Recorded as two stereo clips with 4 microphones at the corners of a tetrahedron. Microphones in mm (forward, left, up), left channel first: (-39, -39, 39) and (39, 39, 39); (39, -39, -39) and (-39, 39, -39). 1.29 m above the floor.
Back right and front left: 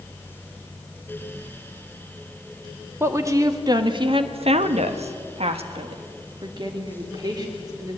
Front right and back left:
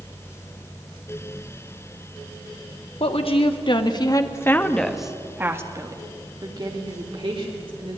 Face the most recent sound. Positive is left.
turn(degrees=100)